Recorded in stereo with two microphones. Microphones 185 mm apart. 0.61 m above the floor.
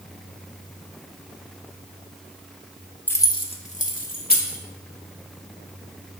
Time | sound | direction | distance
3.1 | keys jangling | 10° left (ahead or behind) | 0.9 m